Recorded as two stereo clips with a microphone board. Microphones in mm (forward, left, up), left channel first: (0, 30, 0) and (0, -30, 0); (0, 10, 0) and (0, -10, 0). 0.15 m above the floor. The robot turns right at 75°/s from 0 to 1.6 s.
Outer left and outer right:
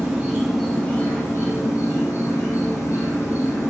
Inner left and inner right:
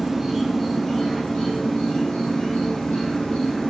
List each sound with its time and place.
0.0 s an insect: 40° right, 1.0 m; by 3.7 s 80° left, 1.0 m